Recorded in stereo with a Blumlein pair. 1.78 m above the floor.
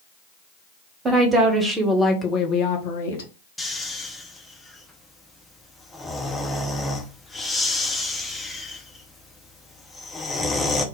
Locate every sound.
1.1 s a woman speaking: 20° right, 1.1 m; by 3.3 s 65° left, 0.9 m
3.6 s snoring: 10° left, 0.6 m